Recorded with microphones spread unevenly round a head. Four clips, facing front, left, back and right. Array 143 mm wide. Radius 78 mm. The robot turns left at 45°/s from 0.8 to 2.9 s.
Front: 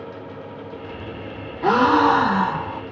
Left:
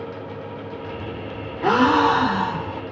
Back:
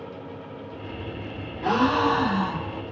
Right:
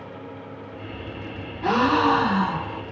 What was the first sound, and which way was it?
A gasp, 35° left.